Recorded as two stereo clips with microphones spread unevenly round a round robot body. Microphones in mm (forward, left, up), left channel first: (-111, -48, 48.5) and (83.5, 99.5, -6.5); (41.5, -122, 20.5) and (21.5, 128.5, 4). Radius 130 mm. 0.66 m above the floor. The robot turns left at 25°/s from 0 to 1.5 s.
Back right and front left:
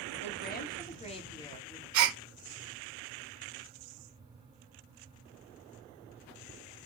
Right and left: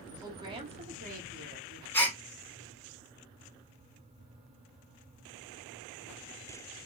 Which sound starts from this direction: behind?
A woman speaking, at 0.2 s.